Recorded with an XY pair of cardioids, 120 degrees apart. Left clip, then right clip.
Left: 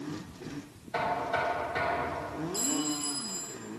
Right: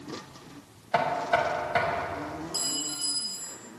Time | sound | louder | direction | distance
0.9 | knocking | right 5 dB | 70° right | 1.3 m
2.5 | a clink | right 1 dB | 65° right | 1.7 m